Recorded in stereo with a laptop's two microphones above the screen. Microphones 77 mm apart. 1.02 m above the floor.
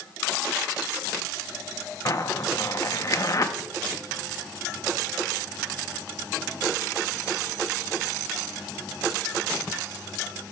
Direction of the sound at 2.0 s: 45° left (ahead or behind).